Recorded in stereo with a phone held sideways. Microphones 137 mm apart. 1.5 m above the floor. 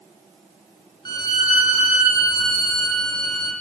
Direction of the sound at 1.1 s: 30° left (ahead or behind).